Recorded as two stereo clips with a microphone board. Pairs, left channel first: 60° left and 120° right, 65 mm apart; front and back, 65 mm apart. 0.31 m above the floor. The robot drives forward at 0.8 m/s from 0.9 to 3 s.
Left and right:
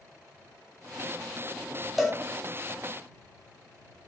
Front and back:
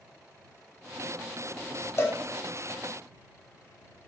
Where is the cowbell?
30° right, 0.8 m; by 2.2 s 40° right, 0.7 m.